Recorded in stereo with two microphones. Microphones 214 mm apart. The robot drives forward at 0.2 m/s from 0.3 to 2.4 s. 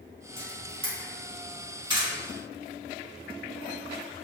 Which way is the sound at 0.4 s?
25° right (ahead or behind).